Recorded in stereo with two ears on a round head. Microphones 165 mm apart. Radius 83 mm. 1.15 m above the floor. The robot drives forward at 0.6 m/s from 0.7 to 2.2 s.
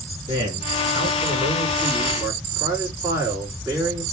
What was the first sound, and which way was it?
A man speaking, 20° right (ahead or behind).